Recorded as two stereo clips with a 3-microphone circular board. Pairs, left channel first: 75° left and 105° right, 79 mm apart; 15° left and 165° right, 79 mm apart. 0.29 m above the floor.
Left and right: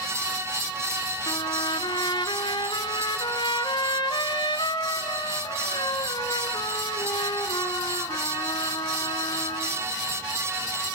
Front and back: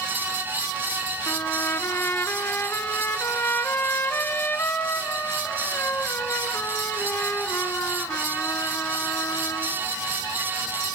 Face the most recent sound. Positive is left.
turn(degrees=80)